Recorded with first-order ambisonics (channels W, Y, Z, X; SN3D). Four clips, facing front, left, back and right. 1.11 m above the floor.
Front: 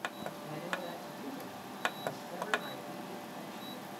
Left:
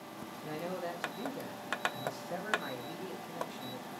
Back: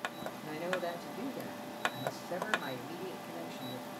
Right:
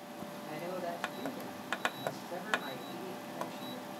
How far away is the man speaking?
About 1.0 m.